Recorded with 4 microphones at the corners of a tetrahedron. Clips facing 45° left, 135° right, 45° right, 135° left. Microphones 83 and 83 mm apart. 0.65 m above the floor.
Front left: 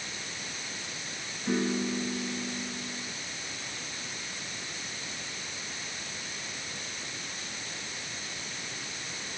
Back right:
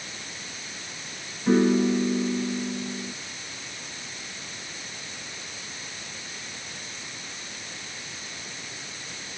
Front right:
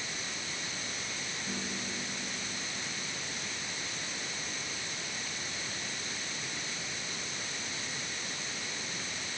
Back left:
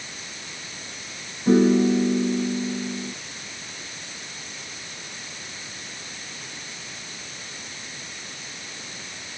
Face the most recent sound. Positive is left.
turn(degrees=165)